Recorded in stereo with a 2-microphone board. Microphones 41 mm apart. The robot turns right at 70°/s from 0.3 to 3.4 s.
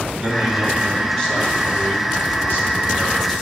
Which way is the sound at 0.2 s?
45° right.